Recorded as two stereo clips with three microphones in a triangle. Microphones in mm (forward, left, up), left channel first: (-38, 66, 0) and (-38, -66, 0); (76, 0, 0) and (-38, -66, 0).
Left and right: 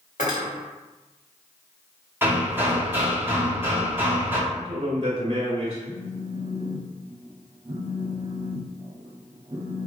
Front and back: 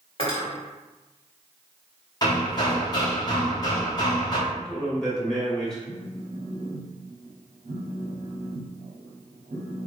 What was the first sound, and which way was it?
Cutlery clinking, 75° left.